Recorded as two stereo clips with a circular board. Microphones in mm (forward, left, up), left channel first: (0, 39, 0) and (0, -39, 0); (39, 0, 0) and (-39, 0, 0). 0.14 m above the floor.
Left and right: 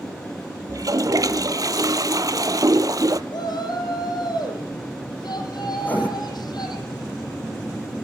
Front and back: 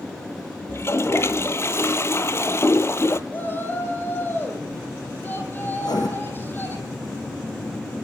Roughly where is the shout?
Ahead left.